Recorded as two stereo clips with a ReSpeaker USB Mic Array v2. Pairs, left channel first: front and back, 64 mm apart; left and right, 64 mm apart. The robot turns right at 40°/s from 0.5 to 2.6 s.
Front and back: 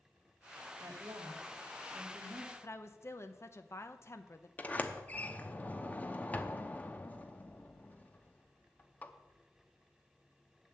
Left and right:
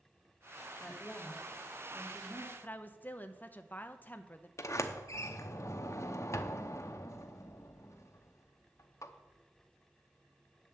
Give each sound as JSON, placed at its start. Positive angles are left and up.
{"t": 0.8, "sound": "a woman speaking", "azimuth_deg": 155, "distance_m": 2.0}
{"t": 2.6, "sound": "a woman speaking", "azimuth_deg": 35, "distance_m": 0.8}
{"t": 4.6, "sound": "a sliding door", "azimuth_deg": 60, "distance_m": 0.8}